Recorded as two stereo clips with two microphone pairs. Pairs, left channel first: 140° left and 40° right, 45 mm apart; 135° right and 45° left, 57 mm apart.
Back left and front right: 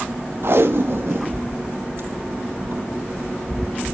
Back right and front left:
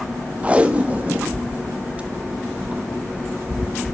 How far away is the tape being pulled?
About 1.3 m.